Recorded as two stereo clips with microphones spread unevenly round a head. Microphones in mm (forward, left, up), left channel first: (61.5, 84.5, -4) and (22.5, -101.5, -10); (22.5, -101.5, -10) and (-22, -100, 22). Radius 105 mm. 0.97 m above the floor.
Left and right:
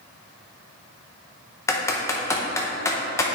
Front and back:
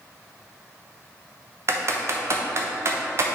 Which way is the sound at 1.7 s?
130° left.